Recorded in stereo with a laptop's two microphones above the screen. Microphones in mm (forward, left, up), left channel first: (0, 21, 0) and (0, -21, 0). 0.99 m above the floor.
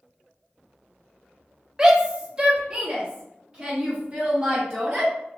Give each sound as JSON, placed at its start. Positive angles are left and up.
{"t": 1.8, "sound": "a shout", "side_deg": -15, "distance_m": 0.7}